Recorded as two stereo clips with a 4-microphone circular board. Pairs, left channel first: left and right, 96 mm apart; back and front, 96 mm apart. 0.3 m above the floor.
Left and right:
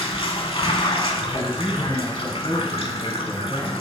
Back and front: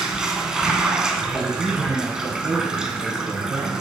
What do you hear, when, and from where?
0.0 s running water: 85° left, 0.7 m
1.3 s a man speaking: 20° left, 1.9 m